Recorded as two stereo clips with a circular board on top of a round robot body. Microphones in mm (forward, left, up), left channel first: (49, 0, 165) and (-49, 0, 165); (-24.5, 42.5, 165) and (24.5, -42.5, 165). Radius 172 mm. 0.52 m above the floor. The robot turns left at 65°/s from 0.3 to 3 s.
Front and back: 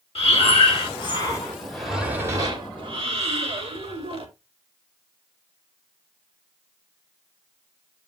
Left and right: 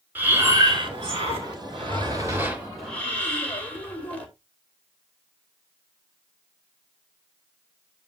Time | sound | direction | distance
0.1 | breathing | 15° left | 3 m